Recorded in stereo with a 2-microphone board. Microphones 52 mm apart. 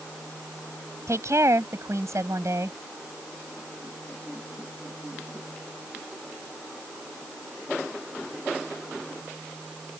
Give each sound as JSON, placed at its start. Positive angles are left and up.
{"t": 1.1, "sound": "a woman speaking", "side_deg": -70}